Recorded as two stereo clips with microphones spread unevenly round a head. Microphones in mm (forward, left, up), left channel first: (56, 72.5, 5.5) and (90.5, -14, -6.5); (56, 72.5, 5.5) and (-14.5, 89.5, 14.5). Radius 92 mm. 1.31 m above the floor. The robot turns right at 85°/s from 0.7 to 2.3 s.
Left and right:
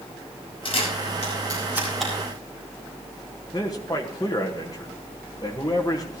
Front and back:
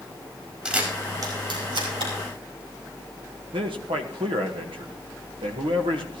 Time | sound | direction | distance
0.7 | a camera shutter | 90° left | 5 m
3.5 | a man speaking | 175° right | 1.4 m